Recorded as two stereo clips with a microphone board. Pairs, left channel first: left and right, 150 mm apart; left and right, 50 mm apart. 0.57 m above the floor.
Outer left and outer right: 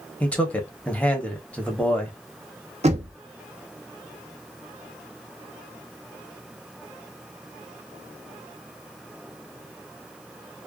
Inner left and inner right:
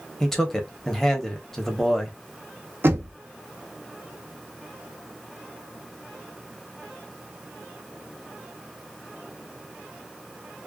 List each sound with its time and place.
0.2 s a man speaking: 10° left (ahead or behind), 0.9 m
2.8 s knocking: 50° right (ahead or behind), 0.7 m